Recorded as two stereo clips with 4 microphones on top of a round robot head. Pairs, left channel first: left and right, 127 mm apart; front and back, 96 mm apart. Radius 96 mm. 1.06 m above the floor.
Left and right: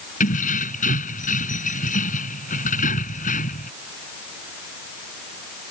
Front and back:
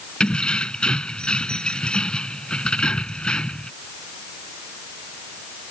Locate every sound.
0.2 s keys jangling: 80° left